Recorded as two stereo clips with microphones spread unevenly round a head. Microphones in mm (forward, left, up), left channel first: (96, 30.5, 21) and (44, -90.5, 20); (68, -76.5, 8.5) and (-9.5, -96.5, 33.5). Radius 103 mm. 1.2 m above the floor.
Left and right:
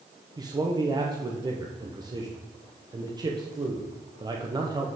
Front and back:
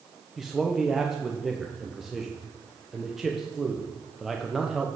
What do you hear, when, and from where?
0.4 s a man speaking: 65° right, 0.9 m